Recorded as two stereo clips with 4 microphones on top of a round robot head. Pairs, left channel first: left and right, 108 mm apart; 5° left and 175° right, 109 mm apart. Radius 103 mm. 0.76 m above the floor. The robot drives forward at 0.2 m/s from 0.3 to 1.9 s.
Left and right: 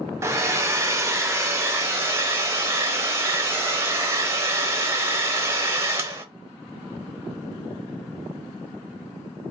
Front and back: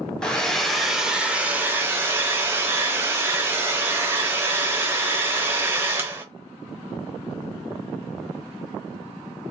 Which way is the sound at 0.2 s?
65° right.